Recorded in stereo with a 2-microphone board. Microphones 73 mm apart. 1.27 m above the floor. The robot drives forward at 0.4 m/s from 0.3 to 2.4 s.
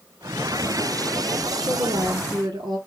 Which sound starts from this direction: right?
A woman speaking, at 1.6 s.